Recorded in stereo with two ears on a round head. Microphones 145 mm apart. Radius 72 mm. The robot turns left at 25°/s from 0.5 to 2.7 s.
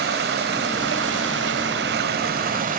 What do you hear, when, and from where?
0.0 s running water: 70° right, 1.3 m; by 2.8 s 125° right, 1.3 m